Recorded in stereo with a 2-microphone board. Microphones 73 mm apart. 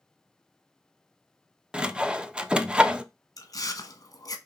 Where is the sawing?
10° right (ahead or behind), 0.5 m.